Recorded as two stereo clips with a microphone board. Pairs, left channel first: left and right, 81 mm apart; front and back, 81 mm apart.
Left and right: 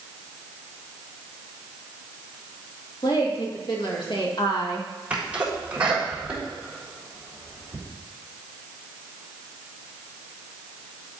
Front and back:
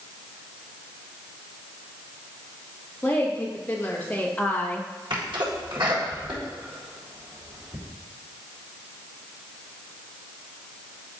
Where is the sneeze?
165° right, 4 m.